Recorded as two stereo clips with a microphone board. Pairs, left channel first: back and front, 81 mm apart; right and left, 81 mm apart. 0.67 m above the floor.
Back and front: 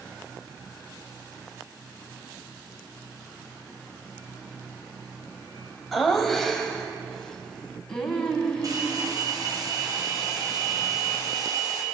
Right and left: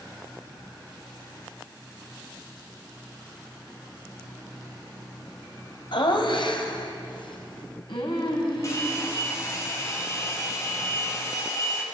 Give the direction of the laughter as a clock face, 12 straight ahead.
3 o'clock.